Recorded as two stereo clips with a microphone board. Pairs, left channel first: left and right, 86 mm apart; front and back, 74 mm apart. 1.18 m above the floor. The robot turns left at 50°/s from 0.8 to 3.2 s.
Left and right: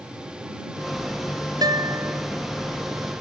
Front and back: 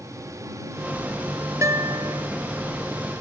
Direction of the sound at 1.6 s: 130° right.